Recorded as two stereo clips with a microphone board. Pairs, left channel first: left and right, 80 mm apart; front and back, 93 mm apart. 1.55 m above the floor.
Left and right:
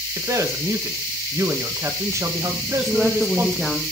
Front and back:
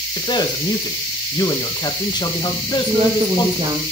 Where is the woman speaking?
Straight behind, 1.8 m.